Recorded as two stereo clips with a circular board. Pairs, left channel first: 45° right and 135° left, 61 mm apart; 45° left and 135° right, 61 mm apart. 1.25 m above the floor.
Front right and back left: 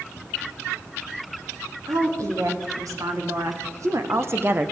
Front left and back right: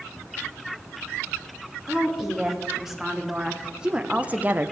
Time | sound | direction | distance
1.9 | a woman speaking | 140° left | 2.5 m